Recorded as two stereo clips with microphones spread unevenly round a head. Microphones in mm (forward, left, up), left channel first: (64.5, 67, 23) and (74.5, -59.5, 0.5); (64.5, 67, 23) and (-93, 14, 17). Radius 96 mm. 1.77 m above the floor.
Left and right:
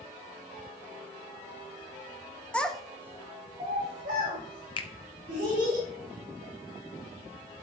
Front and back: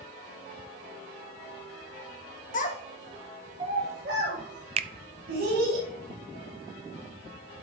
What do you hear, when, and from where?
2.5 s a child speaking: 25° left, 1.4 m; by 5.8 s 135° right, 4 m
4.8 s a finger snap: 150° left, 0.6 m